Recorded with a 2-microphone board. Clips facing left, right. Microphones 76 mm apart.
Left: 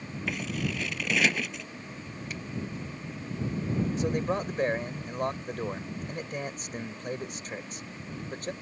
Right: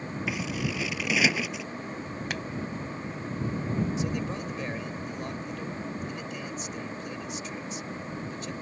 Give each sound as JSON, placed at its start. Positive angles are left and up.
{"t": 0.3, "sound": "scissors", "side_deg": -5}
{"t": 2.3, "sound": "a finger snap", "side_deg": -80}
{"t": 4.0, "sound": "a man speaking", "side_deg": 50}